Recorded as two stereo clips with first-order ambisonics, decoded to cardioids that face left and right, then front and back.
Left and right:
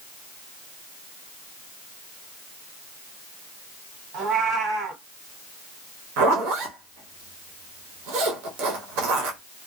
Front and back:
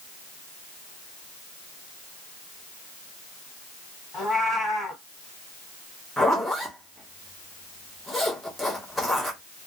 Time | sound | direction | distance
4.1 | a cat meowing | 65° right | 1.7 m
6.2 | a zipper | 85° right | 1.0 m